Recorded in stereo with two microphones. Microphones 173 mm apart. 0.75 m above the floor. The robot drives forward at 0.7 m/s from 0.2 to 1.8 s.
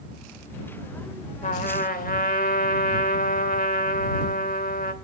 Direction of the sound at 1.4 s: 50° left (ahead or behind).